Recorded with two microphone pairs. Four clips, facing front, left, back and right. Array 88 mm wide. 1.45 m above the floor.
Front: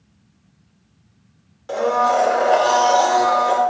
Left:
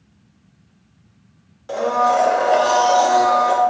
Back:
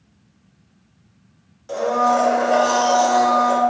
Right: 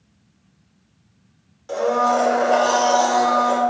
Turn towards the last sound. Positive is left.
turn(degrees=20)